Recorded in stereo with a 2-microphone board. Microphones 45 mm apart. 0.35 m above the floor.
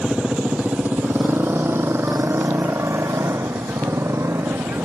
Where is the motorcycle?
20° right (ahead or behind); by 4.9 s 80° right.